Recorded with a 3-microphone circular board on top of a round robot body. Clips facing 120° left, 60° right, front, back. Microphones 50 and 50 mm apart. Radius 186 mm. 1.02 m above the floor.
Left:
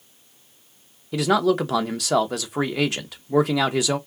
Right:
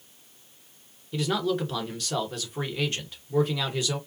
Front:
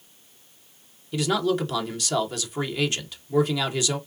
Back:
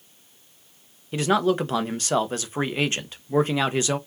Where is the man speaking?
125° left, 1.0 m.